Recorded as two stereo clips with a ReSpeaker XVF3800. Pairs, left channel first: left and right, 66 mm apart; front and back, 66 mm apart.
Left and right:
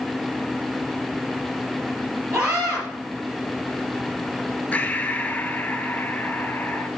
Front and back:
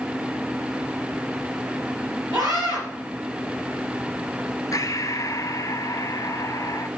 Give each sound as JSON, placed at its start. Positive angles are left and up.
{"t": 2.3, "sound": "a scream", "azimuth_deg": -160, "distance_m": 5.0}
{"t": 4.7, "sound": "breathing", "azimuth_deg": 25, "distance_m": 0.9}